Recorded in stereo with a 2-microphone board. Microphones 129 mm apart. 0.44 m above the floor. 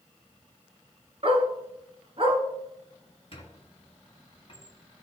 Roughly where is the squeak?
Left.